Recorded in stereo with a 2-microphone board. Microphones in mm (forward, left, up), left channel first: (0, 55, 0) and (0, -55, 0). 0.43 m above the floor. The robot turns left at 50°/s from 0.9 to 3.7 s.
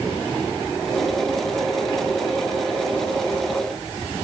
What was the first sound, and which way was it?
Only background noise.